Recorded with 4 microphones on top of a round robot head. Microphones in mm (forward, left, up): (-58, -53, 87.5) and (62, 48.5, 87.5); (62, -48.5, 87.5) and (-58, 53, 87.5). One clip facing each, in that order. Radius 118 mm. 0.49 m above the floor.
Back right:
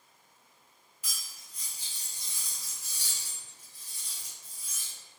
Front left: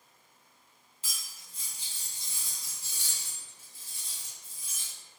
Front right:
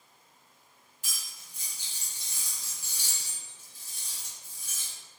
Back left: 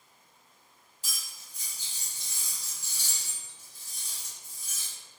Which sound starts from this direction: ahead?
Cutlery clinking, at 1.0 s.